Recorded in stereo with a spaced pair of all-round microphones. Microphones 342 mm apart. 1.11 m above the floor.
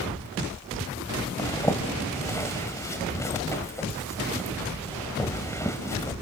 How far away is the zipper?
About 1.8 m.